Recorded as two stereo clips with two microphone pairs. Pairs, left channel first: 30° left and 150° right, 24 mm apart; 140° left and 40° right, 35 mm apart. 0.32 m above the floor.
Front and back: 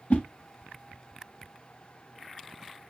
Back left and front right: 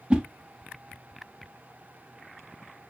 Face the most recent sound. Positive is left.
turn(degrees=30)